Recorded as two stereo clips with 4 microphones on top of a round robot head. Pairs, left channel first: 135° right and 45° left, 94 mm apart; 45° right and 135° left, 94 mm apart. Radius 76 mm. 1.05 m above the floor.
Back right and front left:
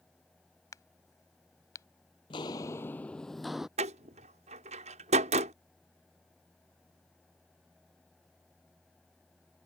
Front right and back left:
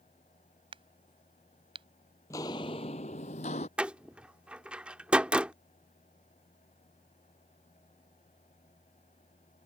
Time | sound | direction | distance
0.7 | a crack | 165° left | ?
2.3 | footsteps | 100° right | ?
3.8 | a door slam | 55° left | ?